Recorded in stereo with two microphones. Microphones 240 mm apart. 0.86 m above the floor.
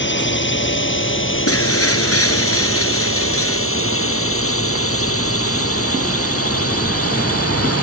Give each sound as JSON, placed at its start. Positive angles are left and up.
{"t": 0.0, "sound": "a drone", "side_deg": 50}
{"t": 1.5, "sound": "breaking glass", "side_deg": 65}